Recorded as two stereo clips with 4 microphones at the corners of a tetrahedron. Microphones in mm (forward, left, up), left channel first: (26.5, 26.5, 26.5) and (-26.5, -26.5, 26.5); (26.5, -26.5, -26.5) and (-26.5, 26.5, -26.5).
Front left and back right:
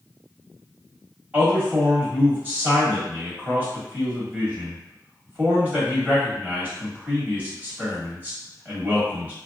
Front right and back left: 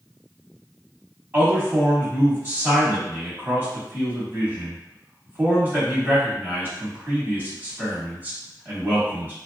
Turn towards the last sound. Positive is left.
turn(degrees=175)